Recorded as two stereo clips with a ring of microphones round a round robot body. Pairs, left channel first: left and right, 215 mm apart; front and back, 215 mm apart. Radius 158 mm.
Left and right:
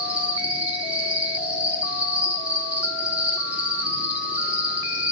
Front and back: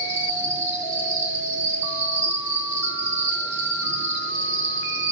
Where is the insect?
175° right, 2.5 m.